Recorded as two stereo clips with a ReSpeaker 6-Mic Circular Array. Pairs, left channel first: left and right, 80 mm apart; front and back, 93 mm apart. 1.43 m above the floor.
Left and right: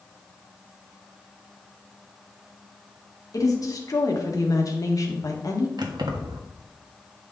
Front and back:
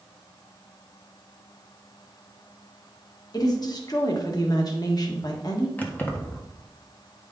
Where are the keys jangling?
70° right, 1.4 m.